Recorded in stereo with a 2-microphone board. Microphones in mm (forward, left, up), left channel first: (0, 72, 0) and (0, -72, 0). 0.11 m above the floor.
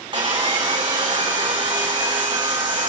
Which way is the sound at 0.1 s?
35° right (ahead or behind).